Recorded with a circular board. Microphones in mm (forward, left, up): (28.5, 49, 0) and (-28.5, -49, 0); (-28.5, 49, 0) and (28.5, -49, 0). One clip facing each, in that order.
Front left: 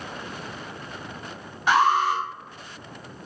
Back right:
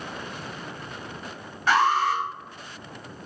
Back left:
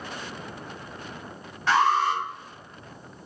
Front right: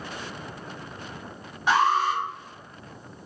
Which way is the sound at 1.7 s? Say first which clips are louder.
Front left 1 dB, even; straight ahead.